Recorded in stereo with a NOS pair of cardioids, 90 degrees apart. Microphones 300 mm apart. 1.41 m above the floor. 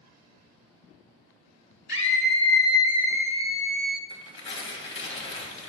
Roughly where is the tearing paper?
Ahead left.